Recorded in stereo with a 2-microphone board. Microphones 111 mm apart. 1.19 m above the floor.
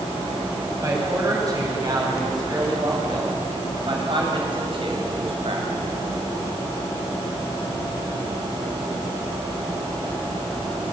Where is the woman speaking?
30° right (ahead or behind), 8.5 m; by 5.8 s 60° right (ahead or behind), 7.5 m.